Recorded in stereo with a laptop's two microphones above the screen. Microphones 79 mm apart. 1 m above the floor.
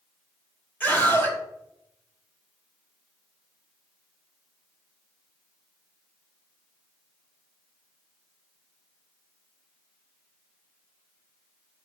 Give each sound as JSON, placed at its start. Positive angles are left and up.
{"t": 0.8, "sound": "a scream", "side_deg": 20, "distance_m": 4.0}